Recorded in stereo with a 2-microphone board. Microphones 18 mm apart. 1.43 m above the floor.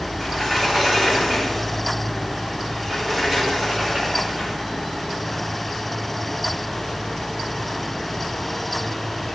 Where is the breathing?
I don't hear breathing.